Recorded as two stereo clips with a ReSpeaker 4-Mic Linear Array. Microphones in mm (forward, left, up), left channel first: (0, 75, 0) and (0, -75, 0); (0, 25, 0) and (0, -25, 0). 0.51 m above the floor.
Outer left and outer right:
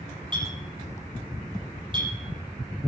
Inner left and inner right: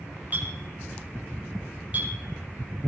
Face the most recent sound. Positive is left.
turn(degrees=-35)  # may be behind; listen again after turning